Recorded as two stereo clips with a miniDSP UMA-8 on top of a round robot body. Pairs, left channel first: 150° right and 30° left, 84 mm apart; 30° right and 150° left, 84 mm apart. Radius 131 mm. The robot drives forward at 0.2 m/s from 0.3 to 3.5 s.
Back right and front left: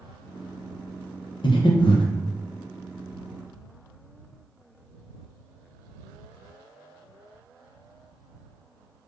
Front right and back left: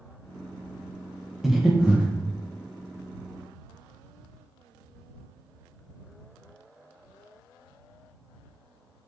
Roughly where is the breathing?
Behind right.